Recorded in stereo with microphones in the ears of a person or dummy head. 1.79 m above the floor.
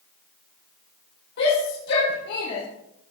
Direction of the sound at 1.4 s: 60° left (ahead or behind).